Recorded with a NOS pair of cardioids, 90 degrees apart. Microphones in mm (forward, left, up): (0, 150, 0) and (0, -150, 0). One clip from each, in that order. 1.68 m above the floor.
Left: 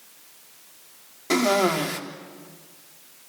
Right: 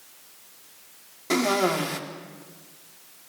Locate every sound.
1.3 s a cough: 10° left, 3.5 m